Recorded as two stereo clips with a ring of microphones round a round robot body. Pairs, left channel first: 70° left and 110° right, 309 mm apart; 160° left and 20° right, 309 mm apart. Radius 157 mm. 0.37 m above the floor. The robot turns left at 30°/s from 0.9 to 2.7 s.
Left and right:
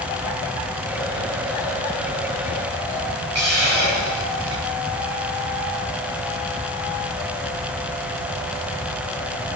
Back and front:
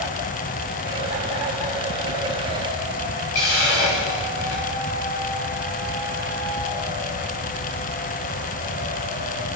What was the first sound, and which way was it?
A hiss, 155° right.